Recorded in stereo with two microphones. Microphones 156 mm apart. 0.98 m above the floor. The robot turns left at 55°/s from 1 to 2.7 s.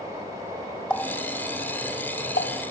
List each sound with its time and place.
0.9 s a running tap: 5° left (ahead or behind), 1.1 m; by 2.6 s 80° left, 1.1 m